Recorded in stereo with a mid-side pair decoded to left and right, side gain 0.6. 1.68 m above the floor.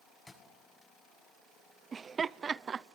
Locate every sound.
0.3 s a thud: 20° left, 7.5 m
1.9 s laughter: 30° right, 0.8 m